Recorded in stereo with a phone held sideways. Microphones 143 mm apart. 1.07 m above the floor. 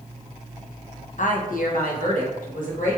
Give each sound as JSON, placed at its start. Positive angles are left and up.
{"t": 1.2, "sound": "a woman speaking", "side_deg": 60, "distance_m": 0.6}